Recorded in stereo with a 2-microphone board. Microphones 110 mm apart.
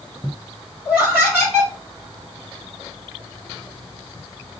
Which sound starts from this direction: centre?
Laughter, at 0.8 s.